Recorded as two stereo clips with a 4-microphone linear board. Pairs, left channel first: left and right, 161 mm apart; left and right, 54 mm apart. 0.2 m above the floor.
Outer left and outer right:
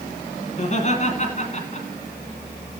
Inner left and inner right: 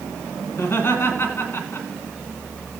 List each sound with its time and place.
0.5 s laughter: 50° left (ahead or behind), 2.5 m